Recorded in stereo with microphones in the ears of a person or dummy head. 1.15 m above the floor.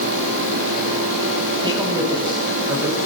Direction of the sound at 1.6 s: 20° right (ahead or behind).